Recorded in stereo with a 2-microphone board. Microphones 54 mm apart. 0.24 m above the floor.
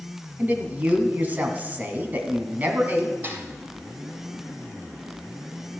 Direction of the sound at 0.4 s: 35° right (ahead or behind).